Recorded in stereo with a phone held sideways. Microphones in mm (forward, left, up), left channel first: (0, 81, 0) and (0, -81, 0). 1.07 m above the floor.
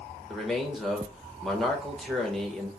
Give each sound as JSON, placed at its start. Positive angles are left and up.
{"t": 0.3, "sound": "a man speaking", "side_deg": 0, "distance_m": 1.2}